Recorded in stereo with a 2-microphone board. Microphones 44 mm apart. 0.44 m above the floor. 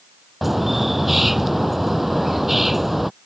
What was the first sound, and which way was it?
A bird, 5° right (ahead or behind).